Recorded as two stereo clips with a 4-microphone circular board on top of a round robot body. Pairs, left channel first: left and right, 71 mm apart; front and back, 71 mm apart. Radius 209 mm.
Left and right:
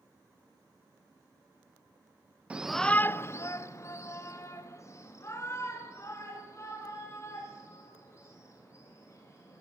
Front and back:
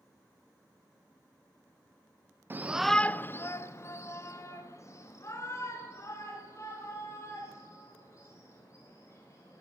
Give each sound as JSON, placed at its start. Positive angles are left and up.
{"t": 2.5, "sound": "a shout", "azimuth_deg": -150, "distance_m": 0.6}